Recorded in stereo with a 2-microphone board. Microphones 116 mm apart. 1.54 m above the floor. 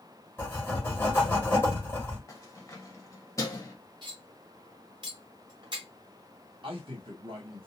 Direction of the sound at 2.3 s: 25° left (ahead or behind).